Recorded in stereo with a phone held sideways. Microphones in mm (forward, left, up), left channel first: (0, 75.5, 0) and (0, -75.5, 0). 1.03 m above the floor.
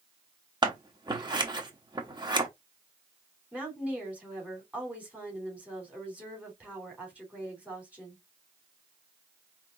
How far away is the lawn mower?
I don't hear a lawn mower.